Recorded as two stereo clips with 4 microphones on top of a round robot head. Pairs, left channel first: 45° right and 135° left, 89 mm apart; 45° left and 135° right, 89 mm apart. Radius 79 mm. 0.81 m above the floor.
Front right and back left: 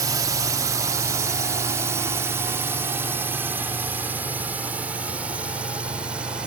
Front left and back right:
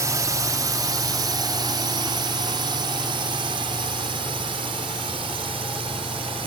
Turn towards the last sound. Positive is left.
turn(degrees=-145)